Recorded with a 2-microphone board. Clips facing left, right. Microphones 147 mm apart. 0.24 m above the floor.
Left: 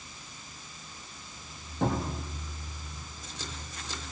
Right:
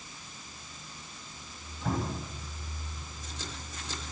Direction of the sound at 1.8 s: 70° left (ahead or behind).